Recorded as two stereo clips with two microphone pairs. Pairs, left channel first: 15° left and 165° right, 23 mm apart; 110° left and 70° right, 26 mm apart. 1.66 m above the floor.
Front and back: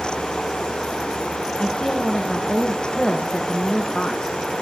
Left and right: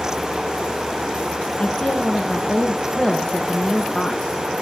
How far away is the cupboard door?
I don't hear a cupboard door.